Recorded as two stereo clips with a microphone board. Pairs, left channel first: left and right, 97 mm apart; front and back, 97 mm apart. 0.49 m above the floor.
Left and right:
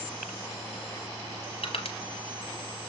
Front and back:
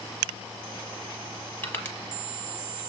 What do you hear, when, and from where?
1.6 s crushing: 65° left, 1.4 m